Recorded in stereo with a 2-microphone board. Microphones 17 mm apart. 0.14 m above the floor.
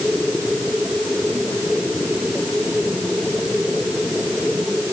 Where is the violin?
I don't hear a violin.